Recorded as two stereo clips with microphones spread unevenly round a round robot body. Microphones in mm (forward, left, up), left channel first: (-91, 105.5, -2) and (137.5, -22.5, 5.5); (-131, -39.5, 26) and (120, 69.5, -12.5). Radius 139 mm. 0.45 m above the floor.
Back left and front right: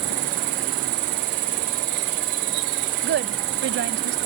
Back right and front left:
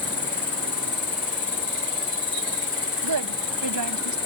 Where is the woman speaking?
15° left.